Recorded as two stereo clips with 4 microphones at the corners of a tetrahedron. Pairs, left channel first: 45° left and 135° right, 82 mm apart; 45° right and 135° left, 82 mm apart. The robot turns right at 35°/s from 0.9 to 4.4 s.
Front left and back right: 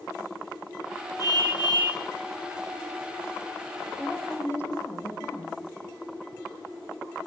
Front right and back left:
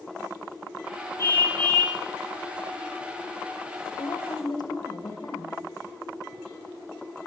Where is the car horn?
5° left, 9.5 m; by 2.0 s 35° left, 9.5 m.